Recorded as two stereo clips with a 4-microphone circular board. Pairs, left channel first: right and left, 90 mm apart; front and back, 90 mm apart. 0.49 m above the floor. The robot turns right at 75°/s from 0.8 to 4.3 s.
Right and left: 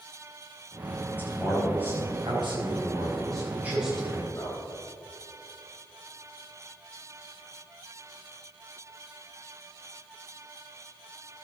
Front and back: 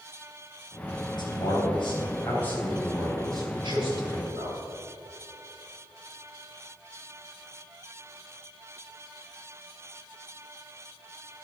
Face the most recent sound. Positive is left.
turn(degrees=-150)